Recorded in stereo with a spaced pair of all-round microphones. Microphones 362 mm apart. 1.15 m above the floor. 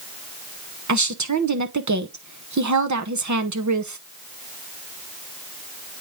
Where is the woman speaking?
50° right (ahead or behind), 0.7 m.